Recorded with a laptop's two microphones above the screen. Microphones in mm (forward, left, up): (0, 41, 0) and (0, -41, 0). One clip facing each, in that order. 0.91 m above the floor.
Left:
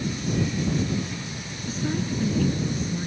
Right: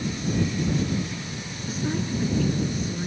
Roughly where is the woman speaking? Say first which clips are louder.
Even; centre.